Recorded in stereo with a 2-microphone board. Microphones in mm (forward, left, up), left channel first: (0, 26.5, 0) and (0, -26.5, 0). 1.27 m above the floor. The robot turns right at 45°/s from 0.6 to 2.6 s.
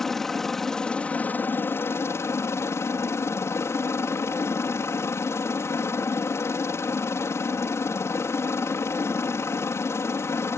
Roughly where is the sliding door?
No sliding door in this recording.